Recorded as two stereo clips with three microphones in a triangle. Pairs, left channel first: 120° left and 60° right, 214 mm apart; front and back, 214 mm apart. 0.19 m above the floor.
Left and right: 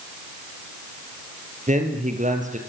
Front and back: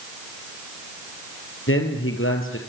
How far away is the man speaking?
About 5 m.